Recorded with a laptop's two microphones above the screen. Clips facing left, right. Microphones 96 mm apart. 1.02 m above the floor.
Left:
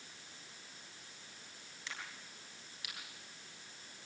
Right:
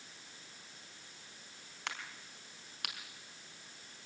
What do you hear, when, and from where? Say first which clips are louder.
1.9 s a crack: right 4 dB; 70° right (ahead or behind), 3.5 m